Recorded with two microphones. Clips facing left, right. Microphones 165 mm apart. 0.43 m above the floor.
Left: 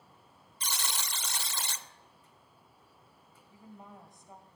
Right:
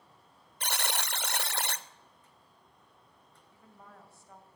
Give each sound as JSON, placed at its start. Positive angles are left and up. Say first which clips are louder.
{"t": 0.6, "sound": "a buzzer", "louder": "right 4 dB", "side_deg": -65, "distance_m": 0.5}
{"t": 3.5, "sound": "a woman speaking", "louder": "left 5 dB", "side_deg": 15, "distance_m": 2.0}